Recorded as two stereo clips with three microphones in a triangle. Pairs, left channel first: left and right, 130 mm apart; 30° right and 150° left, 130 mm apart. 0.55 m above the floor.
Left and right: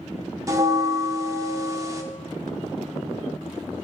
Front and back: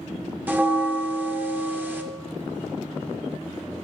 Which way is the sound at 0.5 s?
140° right.